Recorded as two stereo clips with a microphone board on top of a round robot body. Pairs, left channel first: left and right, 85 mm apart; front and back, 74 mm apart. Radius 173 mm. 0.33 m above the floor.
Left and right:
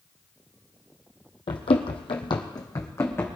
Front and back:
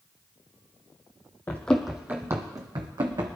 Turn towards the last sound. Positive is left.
turn(degrees=155)